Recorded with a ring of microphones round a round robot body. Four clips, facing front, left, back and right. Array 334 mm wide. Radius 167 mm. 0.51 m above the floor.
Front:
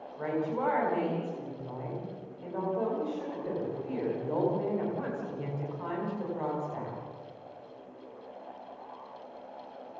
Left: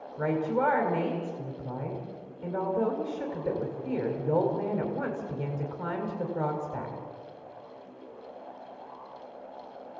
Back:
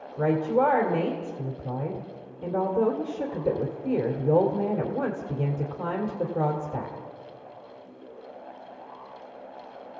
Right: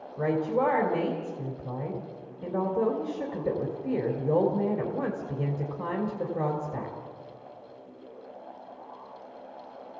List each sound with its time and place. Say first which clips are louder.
0.2 s a woman speaking: right 1 dB, back 8 dB; 150° right, 2.5 m